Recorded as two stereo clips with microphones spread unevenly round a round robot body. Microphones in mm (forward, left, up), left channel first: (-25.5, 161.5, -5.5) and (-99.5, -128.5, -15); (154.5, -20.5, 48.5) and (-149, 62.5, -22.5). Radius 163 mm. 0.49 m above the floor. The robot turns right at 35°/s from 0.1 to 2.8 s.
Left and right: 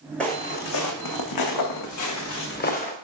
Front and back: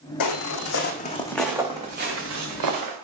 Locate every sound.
0.2 s footsteps: 10° right, 1.3 m; by 2.9 s 140° left, 2.5 m